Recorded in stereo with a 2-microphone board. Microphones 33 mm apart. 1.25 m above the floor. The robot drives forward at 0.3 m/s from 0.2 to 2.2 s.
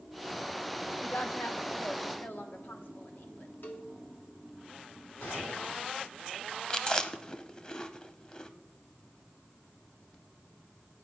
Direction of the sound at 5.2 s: 90° left.